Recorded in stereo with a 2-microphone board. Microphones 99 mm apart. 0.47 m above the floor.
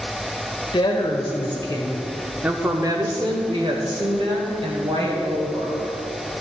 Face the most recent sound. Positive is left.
turn(degrees=-75)  # may be behind; listen again after turning